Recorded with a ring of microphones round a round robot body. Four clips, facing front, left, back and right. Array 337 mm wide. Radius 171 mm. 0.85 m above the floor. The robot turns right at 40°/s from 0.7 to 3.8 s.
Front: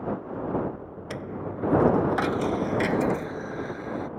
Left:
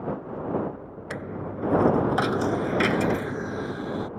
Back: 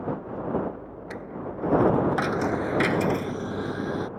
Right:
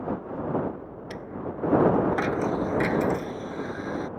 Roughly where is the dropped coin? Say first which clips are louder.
Left 1 dB, front 1 dB; ahead left.